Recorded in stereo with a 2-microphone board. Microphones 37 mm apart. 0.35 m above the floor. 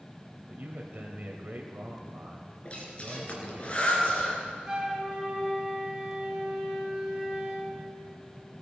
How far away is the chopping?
I don't hear chopping.